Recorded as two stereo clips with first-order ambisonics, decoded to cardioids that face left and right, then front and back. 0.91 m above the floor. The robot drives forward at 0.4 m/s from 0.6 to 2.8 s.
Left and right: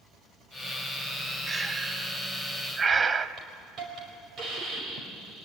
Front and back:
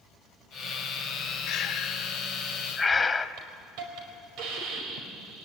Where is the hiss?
150° right, 5 m.